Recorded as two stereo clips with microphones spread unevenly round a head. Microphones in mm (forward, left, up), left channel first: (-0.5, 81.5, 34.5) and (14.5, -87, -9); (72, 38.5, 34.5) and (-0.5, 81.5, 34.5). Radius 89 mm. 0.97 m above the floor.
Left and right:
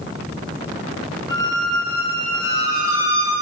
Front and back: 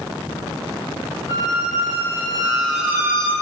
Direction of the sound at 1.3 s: 5° right.